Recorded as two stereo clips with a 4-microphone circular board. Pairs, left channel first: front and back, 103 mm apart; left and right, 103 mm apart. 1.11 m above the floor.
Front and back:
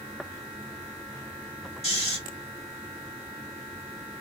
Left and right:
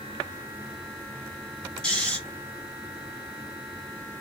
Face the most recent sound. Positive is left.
turn(degrees=10)